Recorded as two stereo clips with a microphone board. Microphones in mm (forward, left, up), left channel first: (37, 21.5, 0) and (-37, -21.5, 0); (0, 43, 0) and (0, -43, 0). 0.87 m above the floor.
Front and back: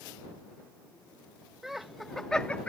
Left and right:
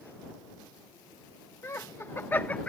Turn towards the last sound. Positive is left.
turn(degrees=50)